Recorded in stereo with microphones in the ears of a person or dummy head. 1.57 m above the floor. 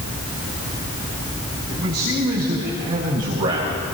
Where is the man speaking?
55° right (ahead or behind), 7.5 m; by 3.8 s 35° right (ahead or behind), 6.5 m.